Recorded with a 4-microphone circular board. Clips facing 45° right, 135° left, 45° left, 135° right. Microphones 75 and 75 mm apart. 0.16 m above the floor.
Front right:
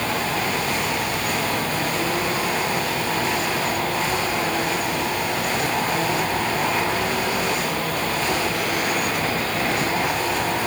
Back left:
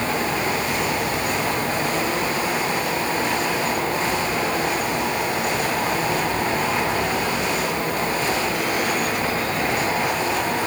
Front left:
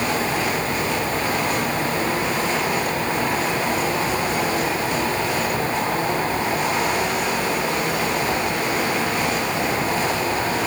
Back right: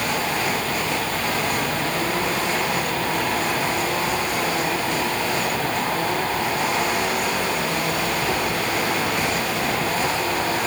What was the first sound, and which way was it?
Only background noise.